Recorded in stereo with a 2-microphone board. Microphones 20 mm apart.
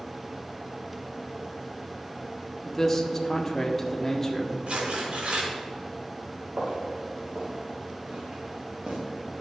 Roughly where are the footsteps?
Right.